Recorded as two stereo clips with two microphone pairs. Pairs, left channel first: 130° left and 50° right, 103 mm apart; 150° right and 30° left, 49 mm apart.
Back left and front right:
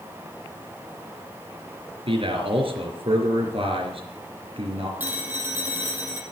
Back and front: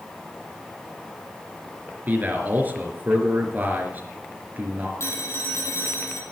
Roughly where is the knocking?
I don't hear knocking.